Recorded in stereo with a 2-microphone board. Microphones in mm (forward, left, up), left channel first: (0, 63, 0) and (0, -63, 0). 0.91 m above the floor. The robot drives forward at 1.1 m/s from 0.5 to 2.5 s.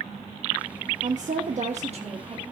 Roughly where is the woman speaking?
Right.